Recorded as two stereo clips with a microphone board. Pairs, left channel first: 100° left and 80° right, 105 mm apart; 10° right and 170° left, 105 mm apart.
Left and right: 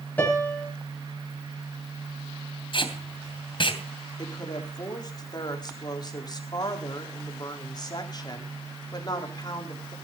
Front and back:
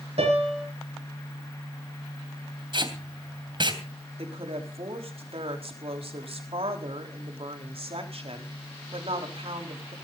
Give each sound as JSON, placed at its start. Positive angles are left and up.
{"t": 0.2, "sound": "a piano", "azimuth_deg": 175, "distance_m": 6.5}
{"t": 2.7, "sound": "tape being pulled", "azimuth_deg": 135, "distance_m": 3.0}
{"t": 4.2, "sound": "a woman speaking", "azimuth_deg": 150, "distance_m": 4.0}